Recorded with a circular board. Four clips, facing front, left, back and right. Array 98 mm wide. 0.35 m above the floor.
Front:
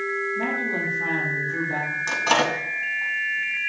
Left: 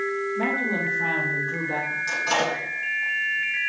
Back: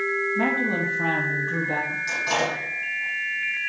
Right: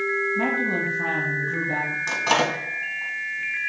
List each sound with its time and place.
0.3 s a woman speaking: 140° right, 3 m; by 2.0 s 170° right, 3 m
2.1 s a microwave: 45° right, 2 m